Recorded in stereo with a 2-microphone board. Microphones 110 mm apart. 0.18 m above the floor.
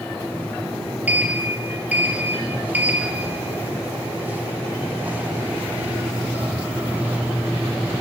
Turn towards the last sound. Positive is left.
turn(degrees=-15)  # may be behind; listen again after turning